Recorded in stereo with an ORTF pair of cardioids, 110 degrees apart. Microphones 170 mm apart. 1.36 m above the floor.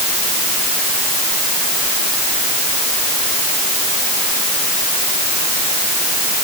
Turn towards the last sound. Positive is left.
No sound to turn to.